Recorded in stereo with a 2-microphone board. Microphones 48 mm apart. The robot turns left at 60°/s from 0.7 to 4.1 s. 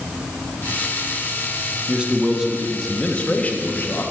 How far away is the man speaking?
About 0.8 m.